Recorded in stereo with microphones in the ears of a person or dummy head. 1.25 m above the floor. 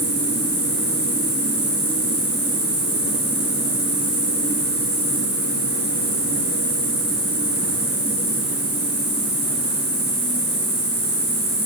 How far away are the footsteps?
I don't hear footsteps.